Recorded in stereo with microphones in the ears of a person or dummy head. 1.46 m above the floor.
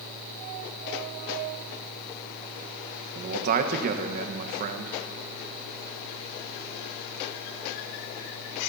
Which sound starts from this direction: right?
A man speaking, at 3.1 s.